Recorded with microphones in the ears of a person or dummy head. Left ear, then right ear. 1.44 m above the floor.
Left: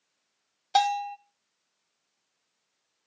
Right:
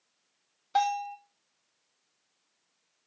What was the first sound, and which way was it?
A bell, 35° left (ahead or behind).